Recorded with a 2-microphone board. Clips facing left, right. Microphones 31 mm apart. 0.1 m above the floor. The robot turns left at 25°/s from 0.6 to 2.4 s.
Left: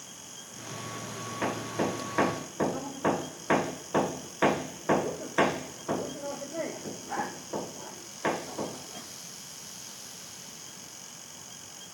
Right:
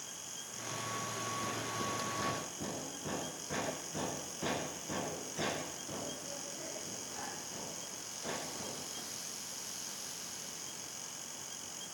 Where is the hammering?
75° left (ahead or behind), 2 m.